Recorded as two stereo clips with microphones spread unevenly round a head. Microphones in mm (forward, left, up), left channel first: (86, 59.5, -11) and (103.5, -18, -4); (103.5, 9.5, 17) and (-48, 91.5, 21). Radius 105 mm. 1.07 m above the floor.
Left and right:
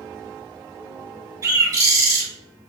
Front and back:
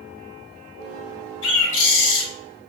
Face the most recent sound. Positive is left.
turn(degrees=-35)